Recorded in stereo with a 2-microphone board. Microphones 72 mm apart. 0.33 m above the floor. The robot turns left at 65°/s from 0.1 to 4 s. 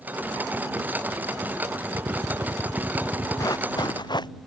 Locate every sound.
1.9 s a drill: 90° right; by 3.5 s 170° left
3.4 s running footsteps: 125° left; by 4.3 s 85° left